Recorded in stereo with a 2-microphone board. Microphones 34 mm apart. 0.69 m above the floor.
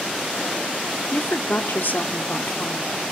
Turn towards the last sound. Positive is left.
turn(degrees=65)  # may be behind; listen again after turning